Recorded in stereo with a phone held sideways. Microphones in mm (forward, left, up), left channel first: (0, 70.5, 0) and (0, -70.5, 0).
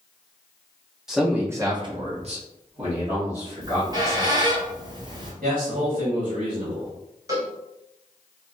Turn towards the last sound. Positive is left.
turn(degrees=-25)  # may be behind; listen again after turning